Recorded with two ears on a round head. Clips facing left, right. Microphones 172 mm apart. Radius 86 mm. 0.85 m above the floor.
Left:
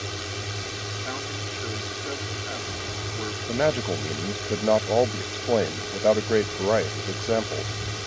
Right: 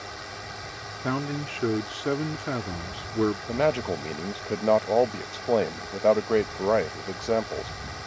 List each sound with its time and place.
0.0 s a drone: 45° left (ahead or behind)
1.0 s a man speaking: 75° right (ahead or behind)
3.5 s a man speaking: 5° left (ahead or behind)